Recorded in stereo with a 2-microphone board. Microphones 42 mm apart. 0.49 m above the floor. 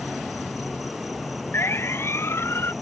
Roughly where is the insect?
Centre.